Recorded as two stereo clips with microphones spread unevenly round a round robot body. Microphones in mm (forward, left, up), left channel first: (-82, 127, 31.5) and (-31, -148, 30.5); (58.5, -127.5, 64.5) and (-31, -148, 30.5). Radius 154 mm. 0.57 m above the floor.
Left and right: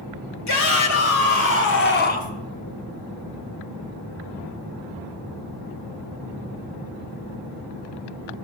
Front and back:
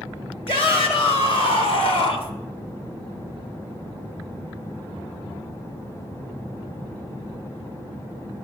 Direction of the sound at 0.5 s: 70° left.